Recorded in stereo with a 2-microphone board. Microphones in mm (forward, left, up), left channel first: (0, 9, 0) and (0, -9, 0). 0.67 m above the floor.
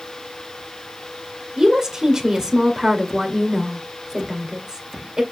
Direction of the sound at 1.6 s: 35° right (ahead or behind).